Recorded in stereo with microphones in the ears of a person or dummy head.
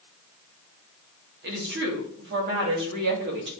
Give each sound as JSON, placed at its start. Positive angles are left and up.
{"t": 1.4, "sound": "a woman speaking", "side_deg": -50, "distance_m": 3.0}